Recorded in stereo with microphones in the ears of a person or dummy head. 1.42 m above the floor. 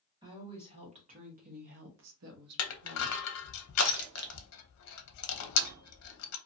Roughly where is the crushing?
Left.